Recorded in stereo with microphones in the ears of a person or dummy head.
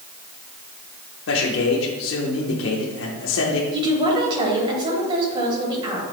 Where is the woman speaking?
30° right (ahead or behind), 3 m.